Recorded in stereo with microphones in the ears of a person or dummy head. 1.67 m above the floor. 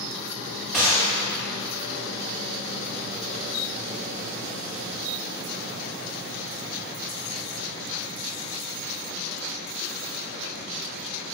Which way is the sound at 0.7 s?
Centre (ahead or behind).